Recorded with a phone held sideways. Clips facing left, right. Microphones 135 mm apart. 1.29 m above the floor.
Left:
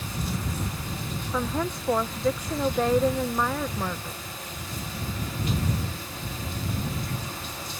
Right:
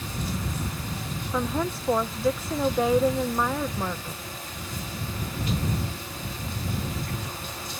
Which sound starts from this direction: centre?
A woman speaking, at 1.3 s.